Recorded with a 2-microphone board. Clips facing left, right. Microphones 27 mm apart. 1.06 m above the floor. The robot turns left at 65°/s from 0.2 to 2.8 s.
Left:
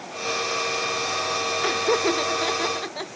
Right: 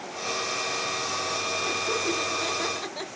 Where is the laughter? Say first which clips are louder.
Left 8 dB; 50° left (ahead or behind), 1.0 m; by 3.1 s 15° left (ahead or behind), 1.0 m.